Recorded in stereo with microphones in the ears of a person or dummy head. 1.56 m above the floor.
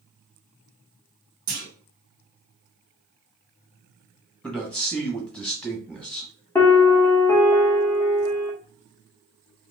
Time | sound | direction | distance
1.5 | a clunk | 50° right (ahead or behind) | 1.5 m
4.4 | a man speaking | 5° left (ahead or behind) | 0.8 m
6.5 | a piano | 15° left (ahead or behind) | 0.7 m